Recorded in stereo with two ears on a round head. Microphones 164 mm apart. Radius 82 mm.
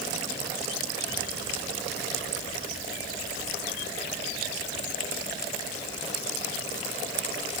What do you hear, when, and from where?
Only background noise.